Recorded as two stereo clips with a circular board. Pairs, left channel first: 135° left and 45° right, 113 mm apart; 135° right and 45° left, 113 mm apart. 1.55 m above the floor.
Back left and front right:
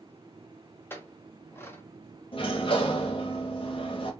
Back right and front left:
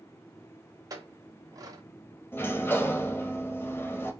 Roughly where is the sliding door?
Behind.